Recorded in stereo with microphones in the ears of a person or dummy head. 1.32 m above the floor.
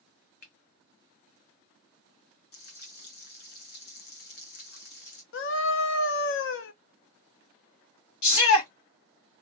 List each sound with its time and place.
0.4 s a finger snap: 50° left (ahead or behind), 0.9 m
2.5 s frying: 55° left (ahead or behind), 0.9 m
5.3 s a scream: 65° left (ahead or behind), 0.7 m
8.2 s a shout: 80° left, 1.6 m